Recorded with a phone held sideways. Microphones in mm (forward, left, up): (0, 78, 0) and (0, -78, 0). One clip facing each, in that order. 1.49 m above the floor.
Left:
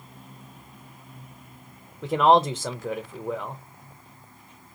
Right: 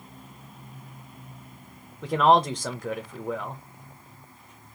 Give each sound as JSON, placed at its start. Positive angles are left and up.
{"t": 2.0, "sound": "a man speaking", "side_deg": 5, "distance_m": 0.6}